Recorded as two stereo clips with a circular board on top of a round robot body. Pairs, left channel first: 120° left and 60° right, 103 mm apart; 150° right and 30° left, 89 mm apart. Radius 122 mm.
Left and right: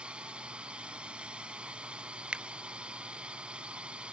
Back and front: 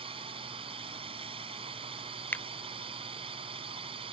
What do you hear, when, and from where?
0.0 s a drone: 20° left
2.3 s a finger snap: 125° right